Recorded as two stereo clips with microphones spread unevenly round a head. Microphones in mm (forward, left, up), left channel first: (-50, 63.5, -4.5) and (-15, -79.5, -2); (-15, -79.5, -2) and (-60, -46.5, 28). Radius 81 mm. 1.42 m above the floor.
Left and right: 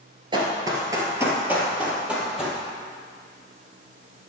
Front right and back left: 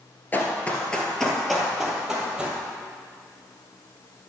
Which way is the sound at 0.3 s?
115° right.